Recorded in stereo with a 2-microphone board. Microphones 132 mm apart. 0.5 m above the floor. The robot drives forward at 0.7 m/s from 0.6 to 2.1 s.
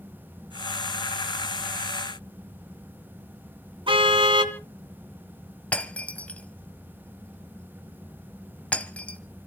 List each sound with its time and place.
3.9 s a car horn: 40° right (ahead or behind), 2 m
5.7 s breaking glass: 10° left (ahead or behind), 1.3 m